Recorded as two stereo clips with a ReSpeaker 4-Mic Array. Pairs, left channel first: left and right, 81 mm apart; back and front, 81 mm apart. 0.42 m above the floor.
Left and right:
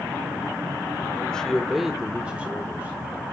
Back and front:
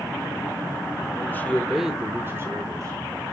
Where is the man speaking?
155° left, 1.2 m; by 3.0 s 25° right, 1.8 m.